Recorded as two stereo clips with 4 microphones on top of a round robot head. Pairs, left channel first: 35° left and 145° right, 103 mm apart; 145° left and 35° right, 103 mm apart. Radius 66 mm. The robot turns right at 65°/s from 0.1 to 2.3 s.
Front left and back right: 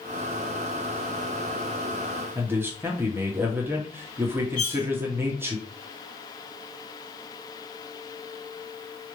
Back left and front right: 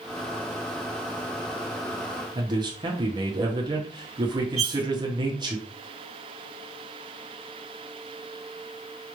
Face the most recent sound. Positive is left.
turn(degrees=-45)